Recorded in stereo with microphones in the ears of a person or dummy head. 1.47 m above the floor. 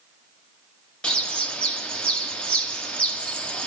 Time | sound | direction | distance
1.0 | a bird | 10° left (ahead or behind) | 0.9 m